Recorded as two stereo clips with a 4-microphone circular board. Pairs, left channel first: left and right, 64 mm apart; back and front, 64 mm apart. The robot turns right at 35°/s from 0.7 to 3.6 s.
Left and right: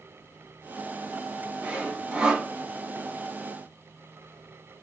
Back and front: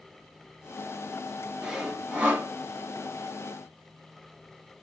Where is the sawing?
65° right, 0.8 m; by 2.5 s 35° right, 0.8 m.